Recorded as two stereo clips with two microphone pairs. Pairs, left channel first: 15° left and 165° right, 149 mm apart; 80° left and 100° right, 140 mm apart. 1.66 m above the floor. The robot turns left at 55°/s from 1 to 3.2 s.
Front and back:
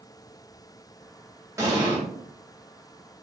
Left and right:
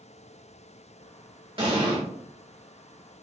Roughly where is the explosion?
Right.